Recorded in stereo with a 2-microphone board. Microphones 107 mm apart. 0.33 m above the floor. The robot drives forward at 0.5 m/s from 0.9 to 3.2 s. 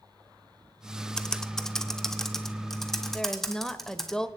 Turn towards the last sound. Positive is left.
turn(degrees=5)  # may be behind; listen again after turning